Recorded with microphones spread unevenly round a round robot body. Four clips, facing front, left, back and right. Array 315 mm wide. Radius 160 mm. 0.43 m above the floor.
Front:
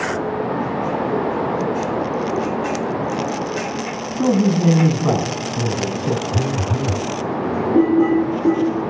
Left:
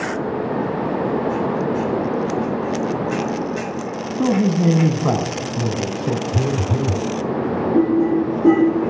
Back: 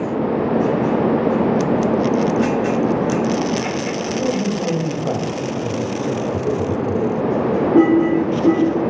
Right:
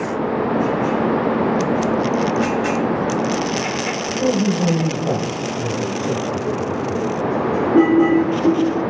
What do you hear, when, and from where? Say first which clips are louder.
4.2 s a man speaking: left 1 dB, front 7 dB; 60° left, 4.5 m
6.3 s a phone buzzing: even, back 2 dB; 60° left, 0.6 m